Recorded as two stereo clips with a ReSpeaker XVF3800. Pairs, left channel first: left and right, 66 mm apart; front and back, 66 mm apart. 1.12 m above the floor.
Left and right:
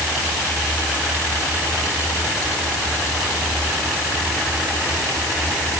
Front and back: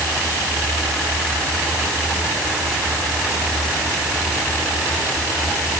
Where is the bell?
No bell in this recording.